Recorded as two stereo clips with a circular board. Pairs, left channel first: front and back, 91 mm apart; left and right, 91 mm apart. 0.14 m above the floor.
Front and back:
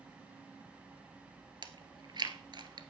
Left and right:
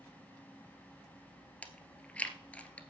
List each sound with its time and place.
1.6 s chewing: 165° left, 1.1 m